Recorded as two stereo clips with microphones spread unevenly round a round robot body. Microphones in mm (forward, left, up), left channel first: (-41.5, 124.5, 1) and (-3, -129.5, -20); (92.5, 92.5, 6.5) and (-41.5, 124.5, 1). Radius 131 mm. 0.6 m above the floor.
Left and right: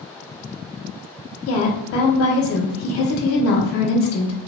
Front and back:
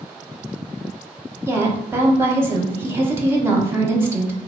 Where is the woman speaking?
100° left, 0.7 m.